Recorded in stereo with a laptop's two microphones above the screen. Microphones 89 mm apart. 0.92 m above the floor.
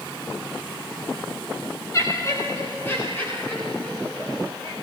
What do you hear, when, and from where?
1.9 s laughter: 35° left (ahead or behind), 3 m; by 4.7 s 15° left (ahead or behind), 5.5 m